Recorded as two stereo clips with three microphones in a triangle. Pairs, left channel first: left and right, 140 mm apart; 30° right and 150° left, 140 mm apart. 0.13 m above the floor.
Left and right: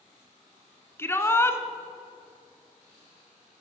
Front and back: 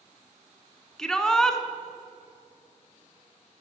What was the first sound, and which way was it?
A shout, 50° left.